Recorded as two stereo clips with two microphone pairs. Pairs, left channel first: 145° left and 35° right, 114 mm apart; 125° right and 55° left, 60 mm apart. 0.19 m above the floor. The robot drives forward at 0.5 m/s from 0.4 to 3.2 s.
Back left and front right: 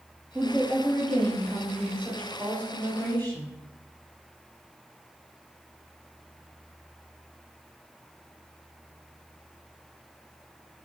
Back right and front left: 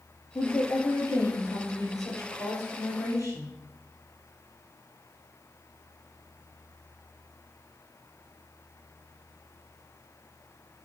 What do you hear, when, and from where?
0.3 s a woman speaking: 125° right, 3.5 m; by 3.5 s 140° right, 4.5 m